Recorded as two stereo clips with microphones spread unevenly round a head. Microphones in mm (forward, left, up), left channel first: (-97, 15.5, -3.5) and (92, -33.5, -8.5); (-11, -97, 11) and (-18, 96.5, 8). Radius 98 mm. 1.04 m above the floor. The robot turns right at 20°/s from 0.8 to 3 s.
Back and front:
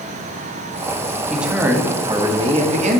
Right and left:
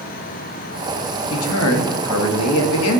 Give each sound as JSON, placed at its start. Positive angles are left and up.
{"t": 1.3, "sound": "a man speaking", "azimuth_deg": -100, "distance_m": 1.0}